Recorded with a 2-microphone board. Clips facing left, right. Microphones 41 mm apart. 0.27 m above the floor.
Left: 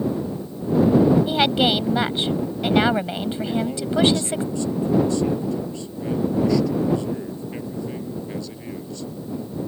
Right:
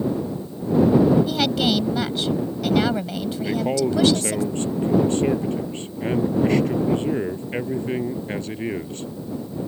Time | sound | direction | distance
1.3 | a woman speaking | 30° left (ahead or behind) | ?
3.4 | a man speaking | 45° right (ahead or behind) | ?